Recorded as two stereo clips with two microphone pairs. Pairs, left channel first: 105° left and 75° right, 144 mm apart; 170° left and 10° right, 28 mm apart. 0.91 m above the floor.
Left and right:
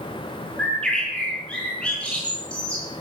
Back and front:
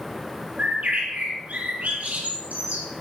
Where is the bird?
25° left, 5.5 m.